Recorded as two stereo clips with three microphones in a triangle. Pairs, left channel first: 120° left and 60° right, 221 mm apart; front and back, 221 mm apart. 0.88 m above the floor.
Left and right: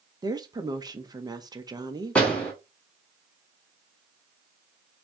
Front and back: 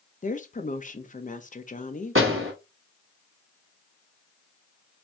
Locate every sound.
0.2 s a woman speaking: straight ahead, 0.7 m
2.1 s a door slam: 155° right, 2 m